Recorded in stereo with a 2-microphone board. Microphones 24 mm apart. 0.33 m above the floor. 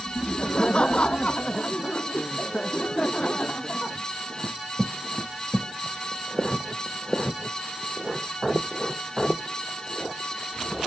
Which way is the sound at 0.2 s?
45° left (ahead or behind).